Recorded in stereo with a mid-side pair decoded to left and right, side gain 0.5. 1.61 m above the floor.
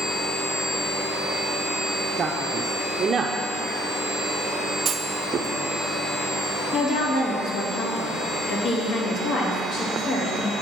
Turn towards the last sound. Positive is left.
turn(degrees=60)